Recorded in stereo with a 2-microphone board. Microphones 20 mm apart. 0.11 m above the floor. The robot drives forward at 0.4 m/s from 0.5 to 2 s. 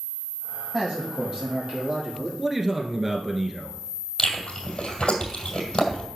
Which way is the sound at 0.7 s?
35° right (ahead or behind).